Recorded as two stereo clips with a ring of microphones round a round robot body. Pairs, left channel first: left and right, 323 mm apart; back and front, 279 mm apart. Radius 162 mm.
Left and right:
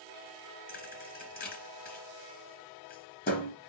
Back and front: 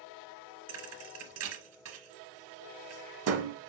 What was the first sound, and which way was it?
A thud, 30° left.